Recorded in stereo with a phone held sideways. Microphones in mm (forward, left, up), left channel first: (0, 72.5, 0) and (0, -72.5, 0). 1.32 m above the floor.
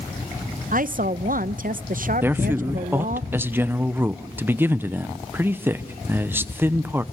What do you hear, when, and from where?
0.7 s a woman speaking: 65° right (ahead or behind), 0.7 m
2.2 s a man speaking: 15° right (ahead or behind), 0.8 m